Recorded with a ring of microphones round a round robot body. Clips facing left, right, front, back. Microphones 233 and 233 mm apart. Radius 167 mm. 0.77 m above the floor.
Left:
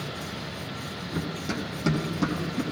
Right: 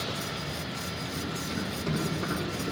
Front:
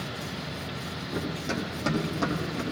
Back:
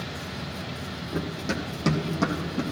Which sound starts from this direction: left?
Running footsteps, at 1.1 s.